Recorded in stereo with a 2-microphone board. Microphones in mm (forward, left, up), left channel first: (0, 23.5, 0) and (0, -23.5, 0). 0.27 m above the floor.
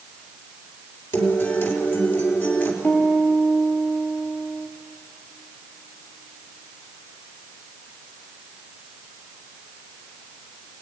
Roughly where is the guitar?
Left.